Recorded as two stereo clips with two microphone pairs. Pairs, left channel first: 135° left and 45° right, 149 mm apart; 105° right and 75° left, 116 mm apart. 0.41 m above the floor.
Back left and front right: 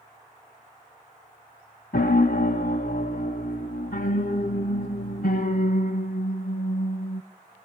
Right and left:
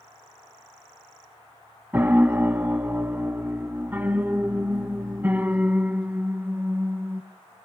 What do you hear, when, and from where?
1.9 s a piano: 150° left, 0.6 m